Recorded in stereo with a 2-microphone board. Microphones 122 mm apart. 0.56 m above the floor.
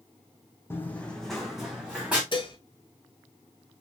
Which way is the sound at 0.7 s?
20° left (ahead or behind).